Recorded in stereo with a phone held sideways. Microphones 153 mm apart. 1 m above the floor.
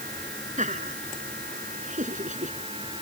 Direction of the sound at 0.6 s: 55° right (ahead or behind).